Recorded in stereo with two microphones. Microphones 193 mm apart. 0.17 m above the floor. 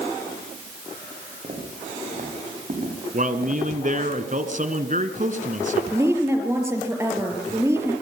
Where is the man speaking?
45° right (ahead or behind), 1.9 m.